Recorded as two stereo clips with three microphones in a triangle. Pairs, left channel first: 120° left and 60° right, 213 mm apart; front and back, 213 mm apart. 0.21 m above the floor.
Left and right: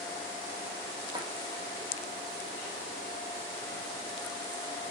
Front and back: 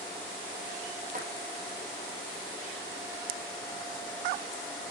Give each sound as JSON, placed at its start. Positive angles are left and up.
{"t": 1.1, "sound": "a drawer", "azimuth_deg": -130, "distance_m": 4.0}